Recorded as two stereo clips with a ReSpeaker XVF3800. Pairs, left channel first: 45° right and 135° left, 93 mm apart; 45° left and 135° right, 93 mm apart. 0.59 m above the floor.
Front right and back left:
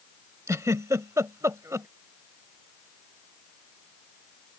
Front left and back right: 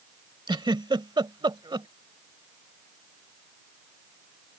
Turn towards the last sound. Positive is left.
turn(degrees=-170)